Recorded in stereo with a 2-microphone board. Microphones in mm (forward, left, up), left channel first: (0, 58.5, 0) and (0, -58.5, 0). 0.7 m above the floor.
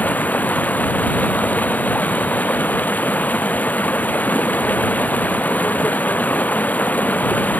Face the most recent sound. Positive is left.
turn(degrees=15)  # may be behind; listen again after turning